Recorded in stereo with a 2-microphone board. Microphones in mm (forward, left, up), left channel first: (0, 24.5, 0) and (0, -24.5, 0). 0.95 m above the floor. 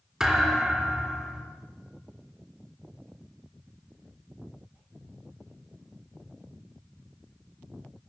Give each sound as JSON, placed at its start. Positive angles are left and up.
{"t": 0.2, "sound": "a thud", "side_deg": -10, "distance_m": 4.0}